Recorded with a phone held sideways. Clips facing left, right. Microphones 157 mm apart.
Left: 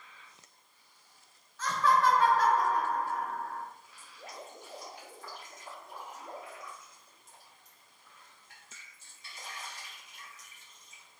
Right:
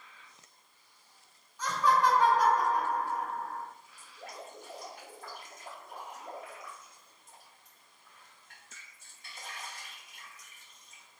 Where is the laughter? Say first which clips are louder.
Even; 15° right (ahead or behind), 1.3 m.